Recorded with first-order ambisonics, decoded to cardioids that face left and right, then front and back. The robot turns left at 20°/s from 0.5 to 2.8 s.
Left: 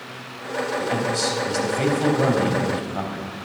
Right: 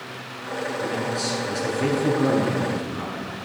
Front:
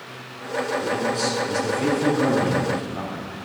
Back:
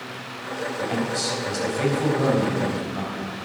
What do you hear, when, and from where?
0.8 s a man speaking: 130° left, 4 m; by 3.3 s 90° left, 4 m